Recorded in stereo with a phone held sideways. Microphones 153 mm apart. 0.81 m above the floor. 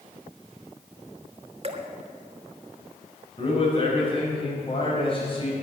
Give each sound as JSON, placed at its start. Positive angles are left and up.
{"t": 1.6, "sound": "dripping", "side_deg": -40, "distance_m": 1.5}
{"t": 3.4, "sound": "a man speaking", "side_deg": 35, "distance_m": 5.0}